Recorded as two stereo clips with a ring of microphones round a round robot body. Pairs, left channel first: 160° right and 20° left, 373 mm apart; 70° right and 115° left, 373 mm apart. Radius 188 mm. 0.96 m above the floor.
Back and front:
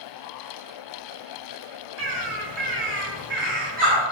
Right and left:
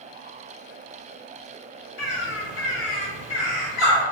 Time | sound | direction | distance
2.0 | a bird | 35° right | 1.6 m